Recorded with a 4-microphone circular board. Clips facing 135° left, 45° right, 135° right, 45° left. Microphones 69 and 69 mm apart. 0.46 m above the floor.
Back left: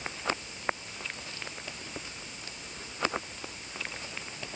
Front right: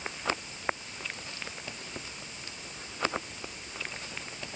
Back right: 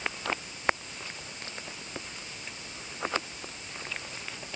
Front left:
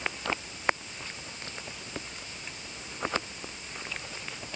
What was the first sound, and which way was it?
Only background noise.